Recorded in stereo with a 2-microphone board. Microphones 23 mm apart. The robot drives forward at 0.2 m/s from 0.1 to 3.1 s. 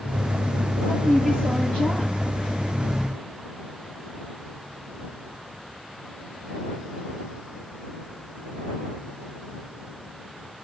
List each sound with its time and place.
0.8 s a woman speaking: 45° left (ahead or behind), 8.5 m